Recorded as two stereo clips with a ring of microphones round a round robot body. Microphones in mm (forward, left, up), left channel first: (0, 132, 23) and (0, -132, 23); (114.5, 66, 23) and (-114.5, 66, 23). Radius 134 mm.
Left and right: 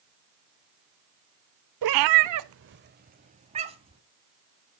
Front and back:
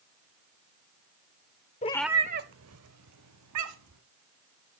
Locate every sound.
1.8 s a cat meowing: 65° right, 0.6 m; by 4.0 s 160° right, 2.5 m